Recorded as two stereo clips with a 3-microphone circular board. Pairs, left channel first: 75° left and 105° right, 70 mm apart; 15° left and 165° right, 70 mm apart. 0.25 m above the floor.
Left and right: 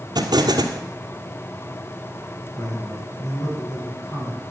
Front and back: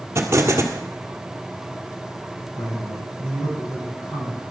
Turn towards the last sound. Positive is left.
turn(degrees=45)